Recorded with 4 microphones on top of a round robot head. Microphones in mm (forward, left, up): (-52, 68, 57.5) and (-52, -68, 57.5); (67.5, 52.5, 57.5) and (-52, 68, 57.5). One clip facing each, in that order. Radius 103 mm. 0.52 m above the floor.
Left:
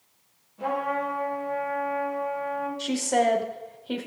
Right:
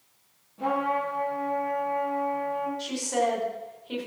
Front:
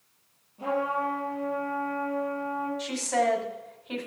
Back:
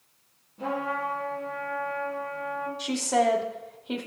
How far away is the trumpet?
About 4.5 m.